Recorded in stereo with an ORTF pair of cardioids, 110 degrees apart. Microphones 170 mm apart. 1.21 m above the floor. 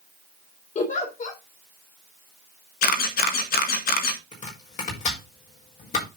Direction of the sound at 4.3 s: 45° left.